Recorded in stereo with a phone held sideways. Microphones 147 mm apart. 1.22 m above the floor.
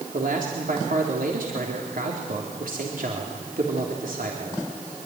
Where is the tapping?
No tapping in this recording.